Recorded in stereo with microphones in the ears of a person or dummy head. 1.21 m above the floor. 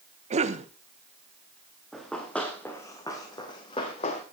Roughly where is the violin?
I don't hear a violin.